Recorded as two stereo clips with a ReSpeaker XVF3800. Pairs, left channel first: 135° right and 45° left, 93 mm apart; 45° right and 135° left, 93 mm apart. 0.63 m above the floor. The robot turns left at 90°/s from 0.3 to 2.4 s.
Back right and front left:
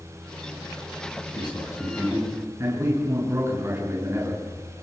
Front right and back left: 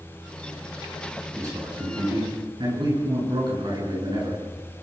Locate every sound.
1.3 s a man speaking: 160° right, 8.5 m; by 4.4 s 105° left, 8.5 m